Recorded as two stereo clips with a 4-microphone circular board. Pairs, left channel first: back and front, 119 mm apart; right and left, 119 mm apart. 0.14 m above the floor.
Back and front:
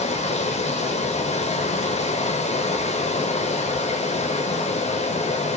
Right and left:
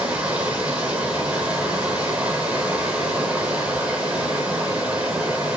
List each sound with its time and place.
0.0 s running water: 170° left, 0.9 m